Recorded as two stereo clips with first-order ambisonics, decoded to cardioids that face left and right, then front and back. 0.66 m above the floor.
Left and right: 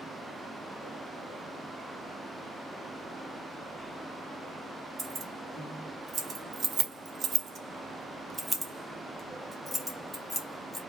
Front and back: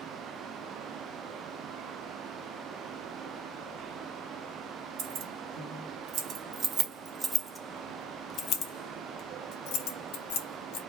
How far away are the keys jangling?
About 1.5 m.